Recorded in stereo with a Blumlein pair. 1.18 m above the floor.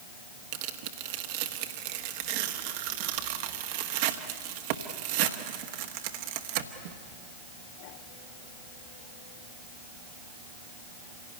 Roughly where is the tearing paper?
Ahead right.